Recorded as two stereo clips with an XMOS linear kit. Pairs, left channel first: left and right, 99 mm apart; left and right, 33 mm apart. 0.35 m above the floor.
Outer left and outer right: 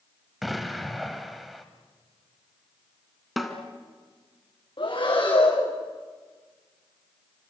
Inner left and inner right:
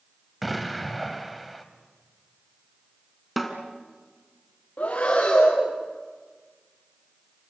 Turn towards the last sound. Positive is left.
turn(degrees=50)  # may be behind; listen again after turning